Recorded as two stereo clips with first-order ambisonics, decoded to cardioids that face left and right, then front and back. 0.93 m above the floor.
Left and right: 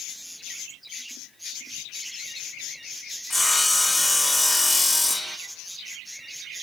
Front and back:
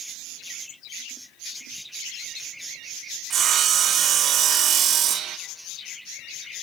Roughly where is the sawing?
Behind.